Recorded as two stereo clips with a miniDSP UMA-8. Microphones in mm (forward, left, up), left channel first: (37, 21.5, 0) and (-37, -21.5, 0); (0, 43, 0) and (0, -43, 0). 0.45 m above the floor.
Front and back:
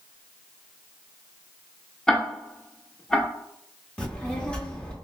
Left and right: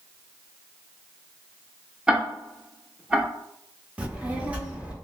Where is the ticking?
35° right, 0.7 m.